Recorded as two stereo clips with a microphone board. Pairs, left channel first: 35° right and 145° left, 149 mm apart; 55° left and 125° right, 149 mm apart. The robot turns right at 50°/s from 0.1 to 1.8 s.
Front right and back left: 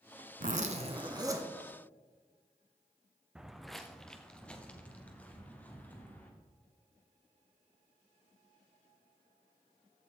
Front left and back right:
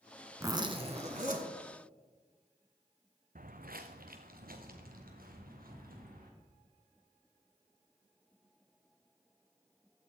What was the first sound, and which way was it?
A zipper, 165° left.